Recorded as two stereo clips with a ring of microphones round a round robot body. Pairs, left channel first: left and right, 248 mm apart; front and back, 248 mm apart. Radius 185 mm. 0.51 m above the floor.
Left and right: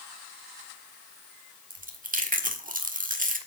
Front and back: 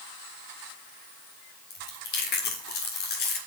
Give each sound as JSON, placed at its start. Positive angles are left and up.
{"t": 1.7, "sound": "chewing", "azimuth_deg": -40, "distance_m": 1.7}